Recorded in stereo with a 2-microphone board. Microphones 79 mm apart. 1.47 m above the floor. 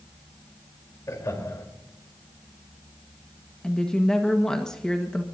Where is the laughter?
45° left (ahead or behind), 4 m.